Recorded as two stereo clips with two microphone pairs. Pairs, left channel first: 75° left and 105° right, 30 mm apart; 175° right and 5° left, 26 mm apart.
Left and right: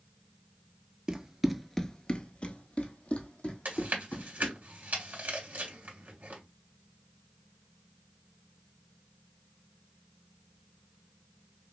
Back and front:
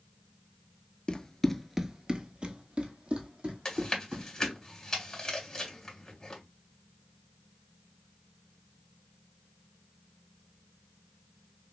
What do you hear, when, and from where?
1.1 s running footsteps: 155° right, 0.7 m; by 4.5 s 35° left, 2.5 m
3.6 s chewing: 110° right, 2 m